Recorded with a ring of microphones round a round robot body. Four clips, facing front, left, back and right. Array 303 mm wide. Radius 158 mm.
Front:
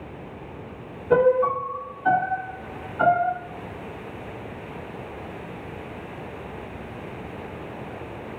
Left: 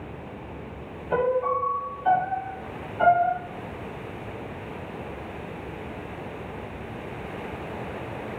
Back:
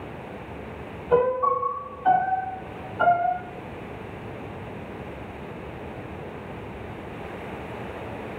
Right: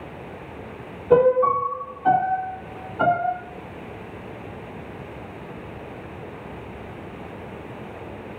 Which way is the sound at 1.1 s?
65° right.